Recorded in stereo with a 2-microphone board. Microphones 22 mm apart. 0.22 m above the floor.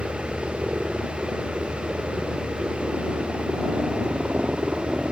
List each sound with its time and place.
0.0 s a helicopter: 70° right (ahead or behind); by 5.1 s 55° right (ahead or behind)